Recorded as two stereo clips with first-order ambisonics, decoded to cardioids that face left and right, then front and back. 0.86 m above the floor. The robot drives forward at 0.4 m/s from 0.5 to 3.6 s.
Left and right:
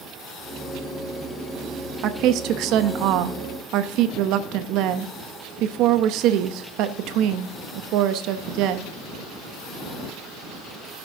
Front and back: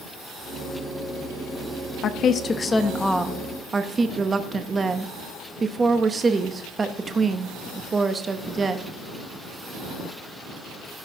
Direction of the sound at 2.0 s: 50° right.